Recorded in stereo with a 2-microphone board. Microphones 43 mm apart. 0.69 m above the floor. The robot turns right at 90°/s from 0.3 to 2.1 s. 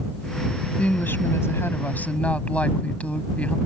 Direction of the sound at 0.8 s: 30° left.